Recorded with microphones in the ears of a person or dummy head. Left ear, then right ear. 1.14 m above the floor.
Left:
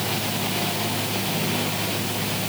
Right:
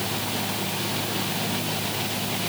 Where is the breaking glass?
No breaking glass in this recording.